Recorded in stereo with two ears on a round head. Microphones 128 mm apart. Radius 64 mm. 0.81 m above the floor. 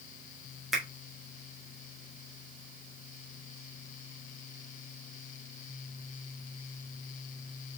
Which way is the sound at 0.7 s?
Centre (ahead or behind).